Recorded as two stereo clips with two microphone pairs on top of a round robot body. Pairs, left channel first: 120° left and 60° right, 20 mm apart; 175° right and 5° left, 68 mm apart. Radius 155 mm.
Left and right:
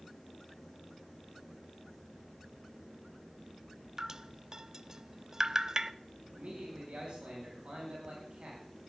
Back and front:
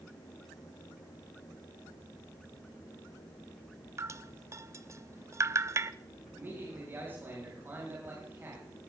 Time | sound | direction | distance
4.0 | dripping | 15° right | 0.6 m
6.3 | a man speaking | 50° right | 5 m